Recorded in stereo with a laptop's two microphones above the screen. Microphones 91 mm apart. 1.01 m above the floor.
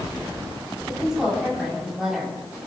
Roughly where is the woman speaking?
Centre.